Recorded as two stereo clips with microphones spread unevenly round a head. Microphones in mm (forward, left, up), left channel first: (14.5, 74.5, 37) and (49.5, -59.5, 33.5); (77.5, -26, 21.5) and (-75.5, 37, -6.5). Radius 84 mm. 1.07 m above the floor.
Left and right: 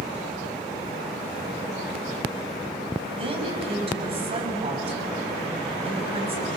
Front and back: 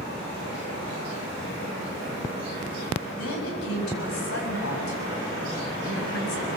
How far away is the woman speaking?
About 6.5 m.